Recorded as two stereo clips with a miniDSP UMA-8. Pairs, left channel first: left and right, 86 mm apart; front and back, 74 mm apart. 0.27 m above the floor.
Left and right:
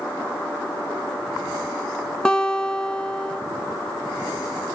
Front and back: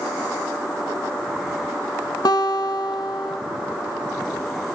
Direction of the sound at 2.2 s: 10° left.